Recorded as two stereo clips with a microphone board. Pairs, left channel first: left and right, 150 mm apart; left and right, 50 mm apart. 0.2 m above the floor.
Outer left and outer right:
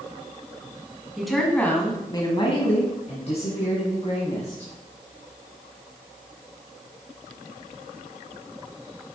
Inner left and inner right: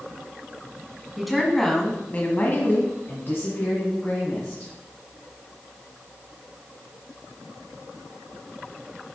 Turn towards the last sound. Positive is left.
turn(degrees=45)  # may be behind; listen again after turning